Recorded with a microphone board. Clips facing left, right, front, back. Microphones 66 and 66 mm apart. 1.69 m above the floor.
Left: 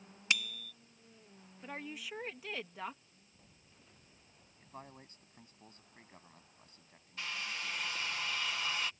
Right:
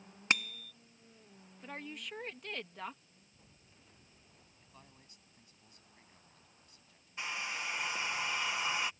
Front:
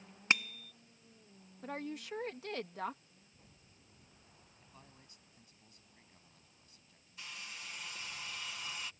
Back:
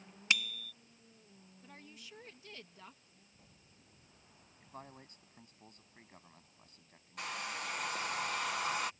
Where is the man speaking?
140° left.